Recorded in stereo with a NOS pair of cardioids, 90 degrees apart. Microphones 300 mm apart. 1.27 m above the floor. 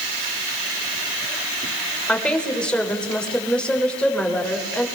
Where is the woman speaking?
5° left, 6 m.